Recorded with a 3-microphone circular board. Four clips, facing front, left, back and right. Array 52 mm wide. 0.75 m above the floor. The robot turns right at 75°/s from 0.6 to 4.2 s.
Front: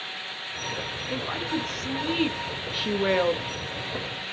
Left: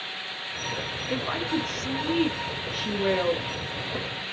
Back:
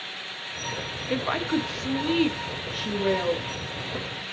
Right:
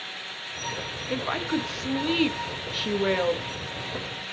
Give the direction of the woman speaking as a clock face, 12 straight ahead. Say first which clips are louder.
Right 1 dB, back 5 dB; 6 o'clock.